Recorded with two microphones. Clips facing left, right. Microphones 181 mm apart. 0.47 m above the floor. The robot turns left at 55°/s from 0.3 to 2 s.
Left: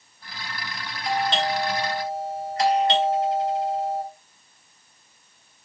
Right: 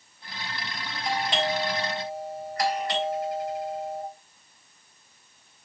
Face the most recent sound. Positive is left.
turn(degrees=155)